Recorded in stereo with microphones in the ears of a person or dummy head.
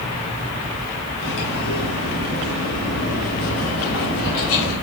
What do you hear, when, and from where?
1.2 s cutlery clinking: 70° left (ahead or behind), 1.6 m